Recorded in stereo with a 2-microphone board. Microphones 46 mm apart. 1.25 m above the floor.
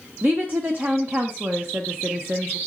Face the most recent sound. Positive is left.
turn(degrees=-45)  # may be behind; listen again after turning